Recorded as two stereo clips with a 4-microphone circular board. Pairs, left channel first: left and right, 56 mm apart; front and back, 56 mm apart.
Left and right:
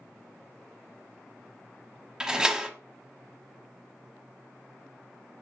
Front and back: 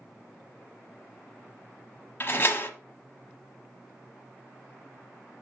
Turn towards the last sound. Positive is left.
turn(degrees=-20)